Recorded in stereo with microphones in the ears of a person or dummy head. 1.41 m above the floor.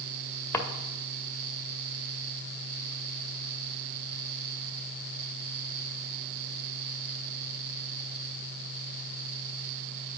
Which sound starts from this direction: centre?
A drawer, at 0.5 s.